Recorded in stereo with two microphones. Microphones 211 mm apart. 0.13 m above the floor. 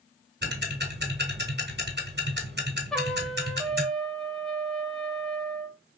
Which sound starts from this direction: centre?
A trumpet, at 2.9 s.